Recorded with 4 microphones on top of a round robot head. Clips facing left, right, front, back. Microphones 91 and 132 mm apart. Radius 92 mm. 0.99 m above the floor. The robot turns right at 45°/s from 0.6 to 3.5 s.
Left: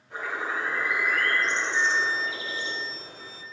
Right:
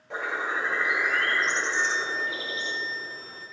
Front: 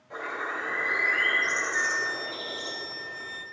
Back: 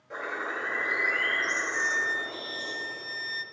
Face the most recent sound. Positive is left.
turn(degrees=135)